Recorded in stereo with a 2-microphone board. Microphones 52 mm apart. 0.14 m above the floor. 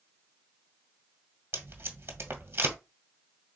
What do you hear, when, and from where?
1.5 s tape being pulled: 45° right (ahead or behind), 1.5 m